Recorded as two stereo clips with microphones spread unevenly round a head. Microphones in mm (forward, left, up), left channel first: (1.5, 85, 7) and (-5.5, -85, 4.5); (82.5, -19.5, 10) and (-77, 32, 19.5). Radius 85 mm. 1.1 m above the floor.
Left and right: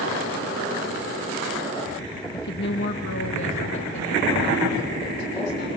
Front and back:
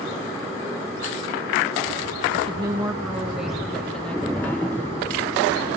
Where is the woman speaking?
110° left, 1.3 m; by 5.7 s 60° left, 5 m.